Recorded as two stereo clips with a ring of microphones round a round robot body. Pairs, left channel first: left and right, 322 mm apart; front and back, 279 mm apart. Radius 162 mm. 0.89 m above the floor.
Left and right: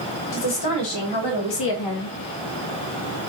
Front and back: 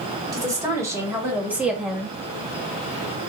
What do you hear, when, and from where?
0.3 s a woman speaking: 100° left, 2.5 m; by 2.1 s 90° left, 1.3 m